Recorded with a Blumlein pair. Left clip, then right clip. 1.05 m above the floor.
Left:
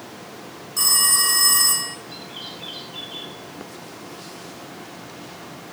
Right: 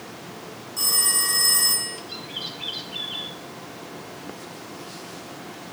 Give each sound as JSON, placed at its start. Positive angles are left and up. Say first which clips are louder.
{"t": 0.8, "sound": "a phone ringing", "louder": "left 4 dB", "azimuth_deg": 70, "distance_m": 7.0}
{"t": 2.1, "sound": "a bird", "louder": "right 2 dB", "azimuth_deg": -20, "distance_m": 3.5}